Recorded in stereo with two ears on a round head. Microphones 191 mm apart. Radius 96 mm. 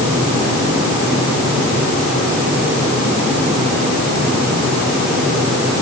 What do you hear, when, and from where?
Only background noise.